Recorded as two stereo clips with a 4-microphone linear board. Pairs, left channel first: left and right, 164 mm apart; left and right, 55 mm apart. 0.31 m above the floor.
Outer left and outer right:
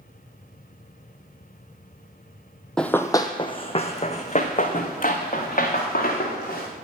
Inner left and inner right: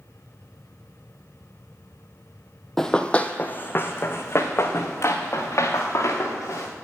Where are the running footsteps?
5° left (ahead or behind), 0.6 m; by 6.7 s 55° left (ahead or behind), 2.5 m.